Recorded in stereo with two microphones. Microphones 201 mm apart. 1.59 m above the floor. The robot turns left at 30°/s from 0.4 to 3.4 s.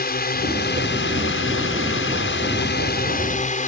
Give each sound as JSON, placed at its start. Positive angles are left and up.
{"t": 0.0, "sound": "a drone", "azimuth_deg": 130}